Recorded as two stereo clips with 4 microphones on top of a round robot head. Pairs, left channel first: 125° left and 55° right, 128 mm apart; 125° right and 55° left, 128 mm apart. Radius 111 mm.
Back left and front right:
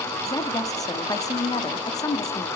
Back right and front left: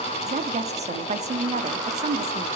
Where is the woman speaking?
65° left, 1.6 m.